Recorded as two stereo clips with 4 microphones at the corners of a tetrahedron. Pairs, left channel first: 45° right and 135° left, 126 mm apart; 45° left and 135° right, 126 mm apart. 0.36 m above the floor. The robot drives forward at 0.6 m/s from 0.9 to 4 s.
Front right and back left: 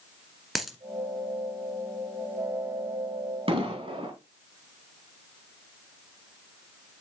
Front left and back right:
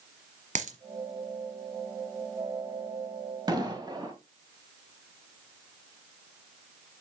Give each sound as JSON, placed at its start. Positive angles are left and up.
{"t": 0.6, "sound": "a dropped coin", "azimuth_deg": -135, "distance_m": 1.4}
{"t": 3.5, "sound": "an explosion", "azimuth_deg": 170, "distance_m": 2.0}